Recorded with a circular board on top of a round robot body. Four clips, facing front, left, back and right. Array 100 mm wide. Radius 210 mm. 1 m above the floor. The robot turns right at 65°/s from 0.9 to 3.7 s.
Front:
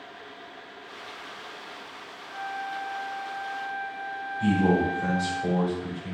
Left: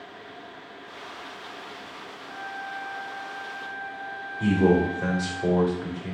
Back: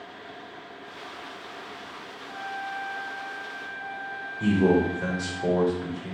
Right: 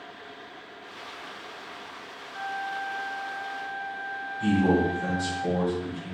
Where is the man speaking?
120° left, 3 m.